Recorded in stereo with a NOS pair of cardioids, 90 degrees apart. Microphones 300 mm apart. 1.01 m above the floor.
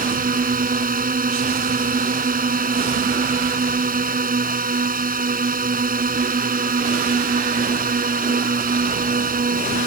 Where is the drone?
30° right.